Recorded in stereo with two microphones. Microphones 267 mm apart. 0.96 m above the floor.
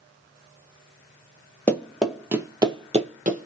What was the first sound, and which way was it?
Running footsteps, 5° left (ahead or behind).